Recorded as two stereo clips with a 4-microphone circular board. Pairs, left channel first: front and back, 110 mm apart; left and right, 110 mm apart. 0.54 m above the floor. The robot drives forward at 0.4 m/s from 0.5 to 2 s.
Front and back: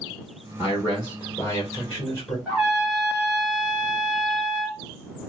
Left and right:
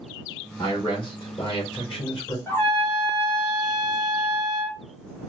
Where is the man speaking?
50° left, 1.7 m; by 2.4 s 70° left, 1.5 m.